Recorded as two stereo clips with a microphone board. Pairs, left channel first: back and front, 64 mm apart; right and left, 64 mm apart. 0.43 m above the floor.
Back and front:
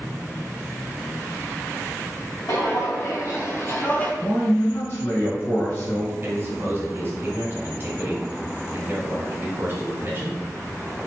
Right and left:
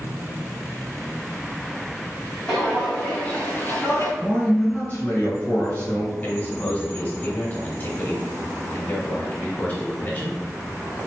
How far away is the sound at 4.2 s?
About 1.8 m.